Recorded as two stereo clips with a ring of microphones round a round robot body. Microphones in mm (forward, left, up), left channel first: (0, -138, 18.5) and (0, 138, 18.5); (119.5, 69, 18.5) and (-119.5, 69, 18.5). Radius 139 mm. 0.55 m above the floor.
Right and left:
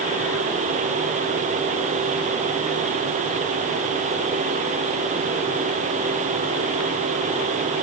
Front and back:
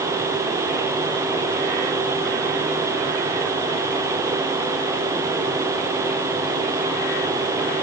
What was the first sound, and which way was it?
Only background noise.